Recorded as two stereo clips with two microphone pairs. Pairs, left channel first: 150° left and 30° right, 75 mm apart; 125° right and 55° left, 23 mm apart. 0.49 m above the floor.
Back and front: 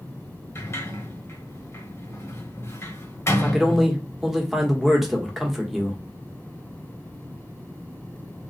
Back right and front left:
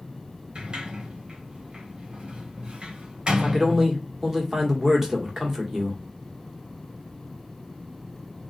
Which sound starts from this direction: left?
A sliding door, at 0.6 s.